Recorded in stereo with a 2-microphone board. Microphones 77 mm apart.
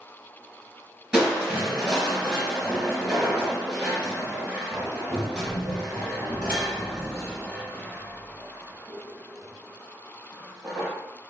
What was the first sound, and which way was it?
Crushing, 10° right (ahead or behind).